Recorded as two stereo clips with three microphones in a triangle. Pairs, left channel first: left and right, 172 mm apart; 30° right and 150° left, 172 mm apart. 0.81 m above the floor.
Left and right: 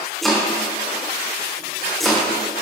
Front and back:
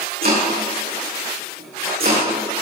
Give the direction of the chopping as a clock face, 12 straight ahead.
6 o'clock.